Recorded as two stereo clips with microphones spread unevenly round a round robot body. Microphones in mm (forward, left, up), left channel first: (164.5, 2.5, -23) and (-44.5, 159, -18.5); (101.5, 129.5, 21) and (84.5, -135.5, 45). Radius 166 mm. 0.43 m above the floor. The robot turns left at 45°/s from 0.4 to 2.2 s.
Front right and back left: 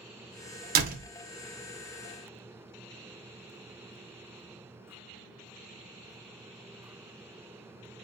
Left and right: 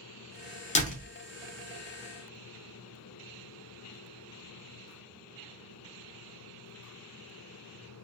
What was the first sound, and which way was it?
A door slam, 120° left.